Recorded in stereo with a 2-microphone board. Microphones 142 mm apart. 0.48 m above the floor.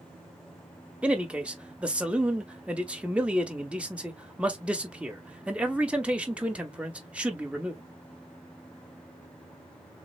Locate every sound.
1.0 s a man speaking: 10° right (ahead or behind), 0.7 m